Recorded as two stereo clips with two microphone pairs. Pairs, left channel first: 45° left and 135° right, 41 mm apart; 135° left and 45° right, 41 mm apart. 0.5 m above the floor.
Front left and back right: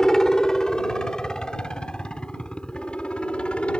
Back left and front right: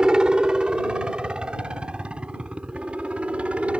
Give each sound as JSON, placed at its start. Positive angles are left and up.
{"t": 0.0, "sound": "a helicopter", "azimuth_deg": -15}